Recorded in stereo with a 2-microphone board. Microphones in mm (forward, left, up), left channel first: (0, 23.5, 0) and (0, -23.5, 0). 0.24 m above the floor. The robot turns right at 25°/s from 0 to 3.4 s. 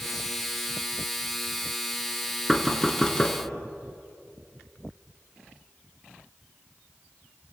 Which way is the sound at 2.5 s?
5° left (ahead or behind).